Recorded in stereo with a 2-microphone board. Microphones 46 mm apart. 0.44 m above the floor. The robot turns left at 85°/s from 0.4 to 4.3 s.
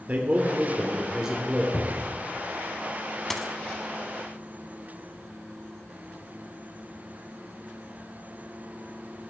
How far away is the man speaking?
About 1.2 m.